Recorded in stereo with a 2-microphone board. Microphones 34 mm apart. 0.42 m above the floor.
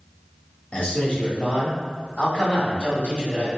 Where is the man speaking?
45° left (ahead or behind), 1.5 m.